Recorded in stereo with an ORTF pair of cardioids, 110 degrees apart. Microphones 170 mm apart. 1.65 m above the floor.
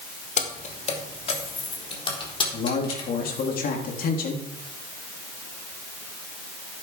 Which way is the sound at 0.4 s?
45° left.